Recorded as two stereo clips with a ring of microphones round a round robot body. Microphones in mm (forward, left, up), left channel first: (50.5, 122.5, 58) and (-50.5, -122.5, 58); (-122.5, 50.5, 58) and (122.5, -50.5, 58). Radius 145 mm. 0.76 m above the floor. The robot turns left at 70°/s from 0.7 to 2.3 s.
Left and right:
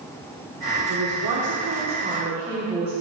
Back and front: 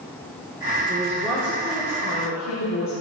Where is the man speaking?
80° right, 1.7 m; by 2.9 s straight behind, 1.7 m.